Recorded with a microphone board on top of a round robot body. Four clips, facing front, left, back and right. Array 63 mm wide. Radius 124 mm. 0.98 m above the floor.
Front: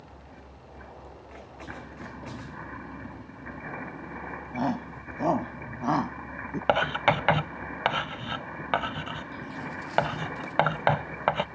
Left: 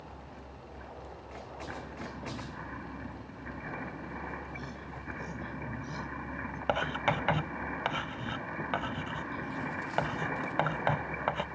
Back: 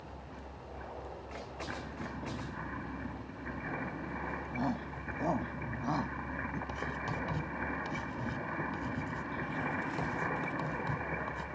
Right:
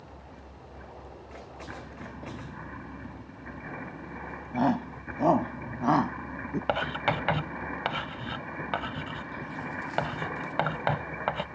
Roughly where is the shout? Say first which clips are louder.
Right 15 dB, front 8 dB; ahead right.